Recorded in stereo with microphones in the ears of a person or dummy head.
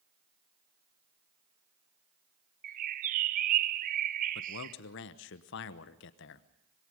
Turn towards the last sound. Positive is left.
turn(degrees=65)  # may be behind; listen again after turning